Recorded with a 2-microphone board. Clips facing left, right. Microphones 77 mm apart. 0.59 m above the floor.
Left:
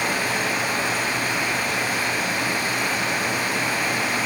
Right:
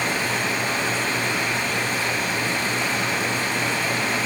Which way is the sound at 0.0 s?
10° left (ahead or behind).